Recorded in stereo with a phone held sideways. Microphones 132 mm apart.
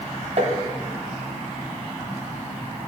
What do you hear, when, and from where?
0.4 s tapping: 45° right (ahead or behind), 1.0 m